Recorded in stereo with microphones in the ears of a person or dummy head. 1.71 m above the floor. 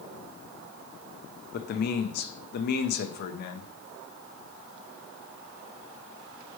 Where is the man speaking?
55° left (ahead or behind), 0.5 m.